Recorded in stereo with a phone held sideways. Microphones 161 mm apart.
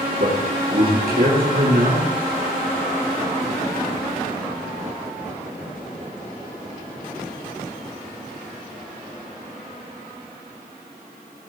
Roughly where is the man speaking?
Right.